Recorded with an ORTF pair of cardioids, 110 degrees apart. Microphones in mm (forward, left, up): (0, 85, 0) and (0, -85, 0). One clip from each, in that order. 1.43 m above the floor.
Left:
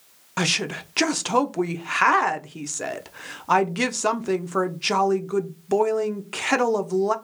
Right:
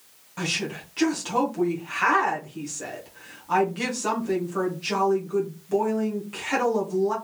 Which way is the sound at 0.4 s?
60° left.